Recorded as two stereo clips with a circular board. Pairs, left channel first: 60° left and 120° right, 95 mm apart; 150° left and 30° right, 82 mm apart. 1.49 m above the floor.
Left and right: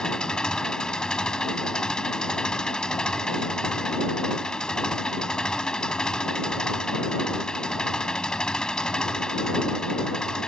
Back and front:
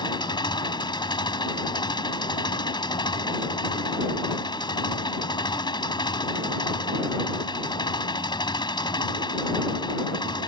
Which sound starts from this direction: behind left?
An engine running, at 0.0 s.